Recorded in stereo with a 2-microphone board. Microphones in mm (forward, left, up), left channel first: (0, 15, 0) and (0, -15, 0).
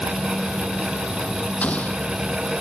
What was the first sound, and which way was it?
An explosion, 50° left (ahead or behind).